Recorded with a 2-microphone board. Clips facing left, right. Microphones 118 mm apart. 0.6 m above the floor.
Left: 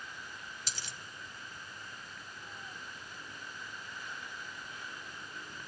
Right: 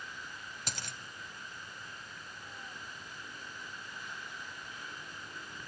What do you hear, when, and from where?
0.7 s a dropped coin: 55° right (ahead or behind), 1.2 m